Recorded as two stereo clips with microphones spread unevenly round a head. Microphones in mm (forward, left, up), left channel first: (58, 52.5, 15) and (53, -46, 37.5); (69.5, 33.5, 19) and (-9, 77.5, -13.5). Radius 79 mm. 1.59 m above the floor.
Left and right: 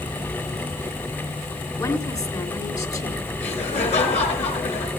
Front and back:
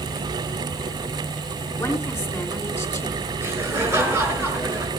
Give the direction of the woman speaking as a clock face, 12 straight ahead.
11 o'clock.